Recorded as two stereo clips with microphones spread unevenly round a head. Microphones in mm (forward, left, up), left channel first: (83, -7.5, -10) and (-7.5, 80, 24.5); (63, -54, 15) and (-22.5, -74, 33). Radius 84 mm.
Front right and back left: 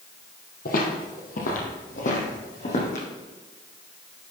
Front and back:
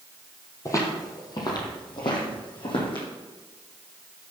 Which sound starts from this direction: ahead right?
Footsteps, at 0.7 s.